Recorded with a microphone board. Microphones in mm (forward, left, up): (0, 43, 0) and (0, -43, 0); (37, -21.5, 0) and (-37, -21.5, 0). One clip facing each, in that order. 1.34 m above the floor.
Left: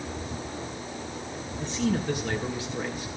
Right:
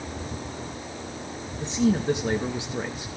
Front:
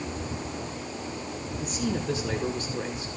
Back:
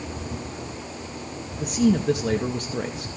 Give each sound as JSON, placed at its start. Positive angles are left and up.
{"t": 1.6, "sound": "a man speaking", "azimuth_deg": -160, "distance_m": 2.5}